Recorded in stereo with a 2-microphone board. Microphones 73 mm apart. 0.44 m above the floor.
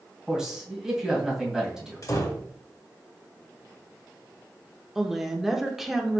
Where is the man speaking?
5° right (ahead or behind), 2 m.